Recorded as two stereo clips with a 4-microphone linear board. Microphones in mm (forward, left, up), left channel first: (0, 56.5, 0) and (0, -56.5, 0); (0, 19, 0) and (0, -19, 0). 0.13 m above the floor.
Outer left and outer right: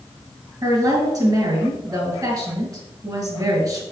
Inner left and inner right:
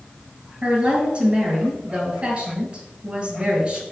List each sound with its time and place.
0.6 s a woman speaking: 35° right (ahead or behind), 2.5 m